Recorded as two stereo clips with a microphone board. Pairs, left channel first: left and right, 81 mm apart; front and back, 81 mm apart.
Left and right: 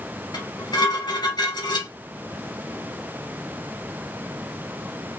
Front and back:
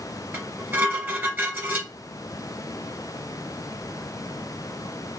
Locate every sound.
0.3 s dishes clattering: 120° left, 2.5 m